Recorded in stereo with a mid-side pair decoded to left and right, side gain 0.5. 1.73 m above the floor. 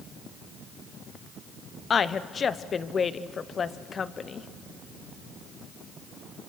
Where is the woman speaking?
40° left, 1.0 m.